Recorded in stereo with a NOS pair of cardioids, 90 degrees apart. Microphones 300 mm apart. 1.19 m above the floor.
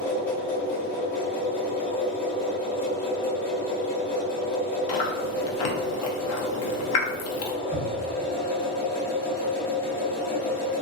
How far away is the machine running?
About 1.4 m.